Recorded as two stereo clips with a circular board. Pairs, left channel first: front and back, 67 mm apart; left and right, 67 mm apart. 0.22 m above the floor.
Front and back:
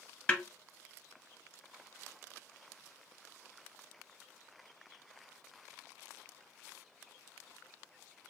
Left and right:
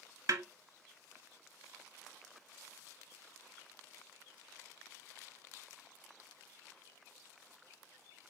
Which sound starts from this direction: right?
A snare drum, at 0.3 s.